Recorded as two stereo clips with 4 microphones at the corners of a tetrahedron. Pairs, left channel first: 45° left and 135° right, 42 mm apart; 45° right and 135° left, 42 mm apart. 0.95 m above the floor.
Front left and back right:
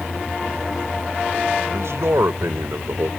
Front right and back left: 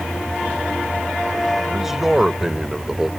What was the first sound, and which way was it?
A man speaking, 145° right.